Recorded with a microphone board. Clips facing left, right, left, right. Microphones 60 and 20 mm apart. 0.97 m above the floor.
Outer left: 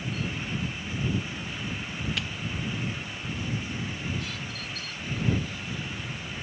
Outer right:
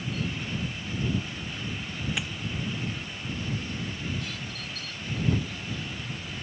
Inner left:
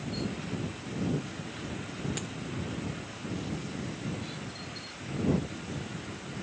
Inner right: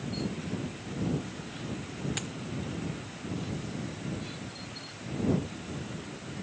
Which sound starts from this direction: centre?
A dropped coin, at 2.2 s.